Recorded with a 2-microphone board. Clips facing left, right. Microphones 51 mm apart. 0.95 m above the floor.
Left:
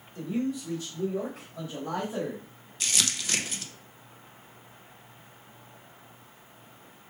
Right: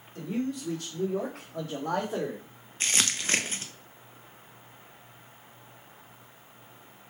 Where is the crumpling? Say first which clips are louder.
Right 2 dB; 35° right (ahead or behind), 0.6 m.